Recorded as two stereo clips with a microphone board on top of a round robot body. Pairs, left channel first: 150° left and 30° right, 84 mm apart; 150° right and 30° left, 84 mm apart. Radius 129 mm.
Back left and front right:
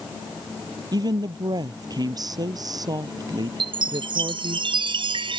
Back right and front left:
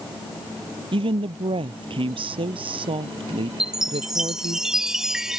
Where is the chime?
55° right.